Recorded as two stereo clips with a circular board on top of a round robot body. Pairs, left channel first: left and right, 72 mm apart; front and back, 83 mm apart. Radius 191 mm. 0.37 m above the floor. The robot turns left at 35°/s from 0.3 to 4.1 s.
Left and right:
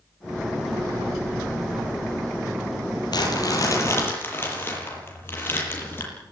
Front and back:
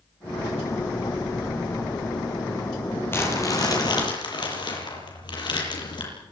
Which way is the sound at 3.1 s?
65° left.